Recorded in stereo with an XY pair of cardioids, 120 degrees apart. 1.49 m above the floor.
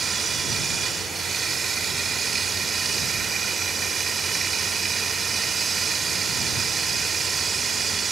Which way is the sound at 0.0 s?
30° right.